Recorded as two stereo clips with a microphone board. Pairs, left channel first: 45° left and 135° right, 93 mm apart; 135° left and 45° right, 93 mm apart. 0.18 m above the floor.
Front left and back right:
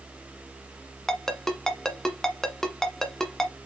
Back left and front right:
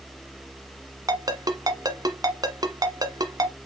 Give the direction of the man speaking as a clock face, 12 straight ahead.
No man speaking in this recording.